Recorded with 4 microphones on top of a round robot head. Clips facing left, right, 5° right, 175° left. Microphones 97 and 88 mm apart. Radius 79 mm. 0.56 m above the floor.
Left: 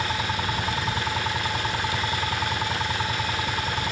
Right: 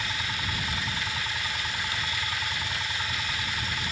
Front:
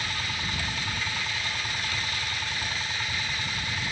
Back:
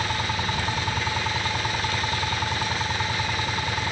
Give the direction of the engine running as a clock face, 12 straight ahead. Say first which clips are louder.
Left 7 dB, back 7 dB; 7 o'clock.